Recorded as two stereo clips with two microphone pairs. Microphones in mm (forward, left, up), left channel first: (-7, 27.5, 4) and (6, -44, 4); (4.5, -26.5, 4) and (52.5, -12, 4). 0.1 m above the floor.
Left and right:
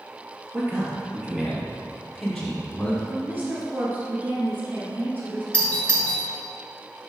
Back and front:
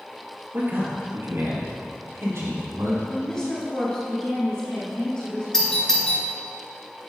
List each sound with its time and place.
0.5 s a man speaking: 25° right, 2 m; by 3.0 s 25° left, 3.5 m
3.1 s a woman speaking: 105° right, 1.6 m
5.5 s a doorbell: 140° left, 1.7 m